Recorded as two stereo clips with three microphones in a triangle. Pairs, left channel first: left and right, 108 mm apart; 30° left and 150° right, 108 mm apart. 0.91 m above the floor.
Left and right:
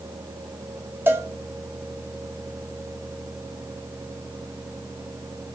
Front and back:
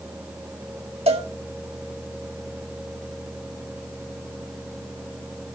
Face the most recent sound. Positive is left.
turn(degrees=-160)